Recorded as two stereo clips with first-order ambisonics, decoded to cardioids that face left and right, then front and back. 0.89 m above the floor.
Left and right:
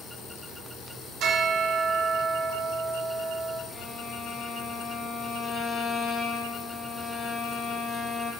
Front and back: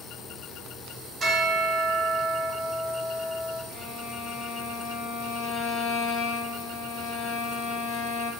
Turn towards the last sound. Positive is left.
turn(degrees=20)